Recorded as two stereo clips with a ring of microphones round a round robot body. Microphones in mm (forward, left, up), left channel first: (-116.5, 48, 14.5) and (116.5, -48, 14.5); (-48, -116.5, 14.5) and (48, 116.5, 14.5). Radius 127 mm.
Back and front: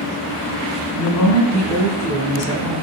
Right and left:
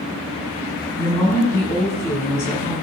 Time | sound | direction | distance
0.9 | a woman speaking | 165° left | 7 m